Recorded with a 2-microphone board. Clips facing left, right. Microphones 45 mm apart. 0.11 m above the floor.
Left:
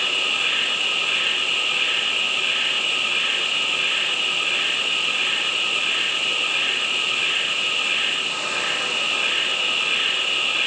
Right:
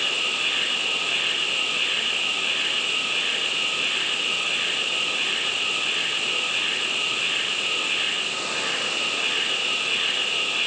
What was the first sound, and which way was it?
An insect, 25° left (ahead or behind).